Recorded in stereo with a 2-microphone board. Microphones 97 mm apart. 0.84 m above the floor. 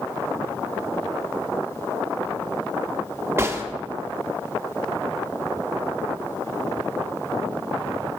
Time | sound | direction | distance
3.4 | a gunshot | 25° right (ahead or behind) | 0.5 m